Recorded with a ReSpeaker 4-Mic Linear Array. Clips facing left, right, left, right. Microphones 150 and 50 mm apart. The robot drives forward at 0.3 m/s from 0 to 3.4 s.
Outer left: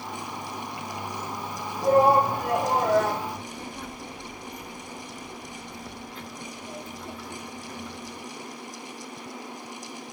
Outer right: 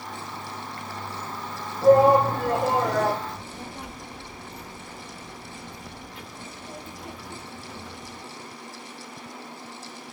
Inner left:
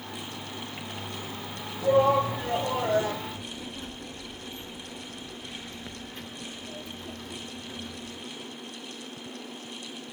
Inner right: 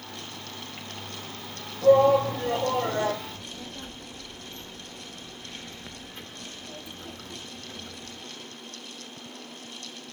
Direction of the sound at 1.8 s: 45° right (ahead or behind).